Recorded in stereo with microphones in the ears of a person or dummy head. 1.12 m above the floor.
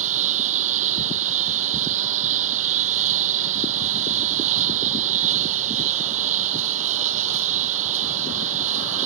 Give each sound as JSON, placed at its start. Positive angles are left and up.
{"t": 0.0, "sound": "a lawn mower", "side_deg": -40}